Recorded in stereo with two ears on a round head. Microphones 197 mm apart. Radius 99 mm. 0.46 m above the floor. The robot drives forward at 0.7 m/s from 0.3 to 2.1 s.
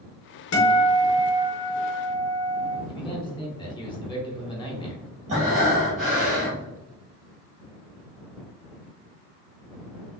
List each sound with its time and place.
0.5 s a guitar: 70° left (ahead or behind), 1.3 m; by 2.8 s 55° left (ahead or behind), 1.4 m
2.9 s a man speaking: 20° left (ahead or behind), 1.0 m
5.3 s breathing: 30° right (ahead or behind), 1.7 m